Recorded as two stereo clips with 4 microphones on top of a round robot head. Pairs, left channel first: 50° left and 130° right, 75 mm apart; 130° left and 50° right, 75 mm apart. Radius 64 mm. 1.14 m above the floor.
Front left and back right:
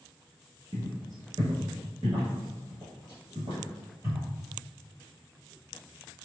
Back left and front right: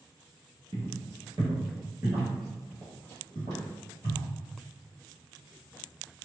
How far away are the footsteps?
About 1.5 m.